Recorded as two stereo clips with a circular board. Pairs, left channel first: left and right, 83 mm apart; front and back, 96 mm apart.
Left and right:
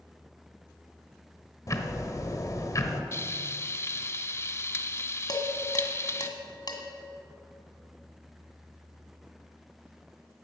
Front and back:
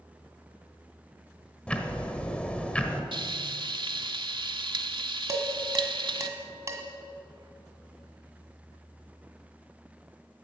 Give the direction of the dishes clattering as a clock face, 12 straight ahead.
8 o'clock.